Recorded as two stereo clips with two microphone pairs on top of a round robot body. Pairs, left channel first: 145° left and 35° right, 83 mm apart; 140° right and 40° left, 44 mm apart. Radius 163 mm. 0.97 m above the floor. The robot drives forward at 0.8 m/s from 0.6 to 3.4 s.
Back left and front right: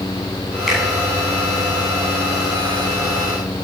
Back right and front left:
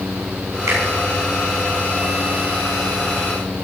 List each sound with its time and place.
0.7 s a finger snap: 55° left, 8 m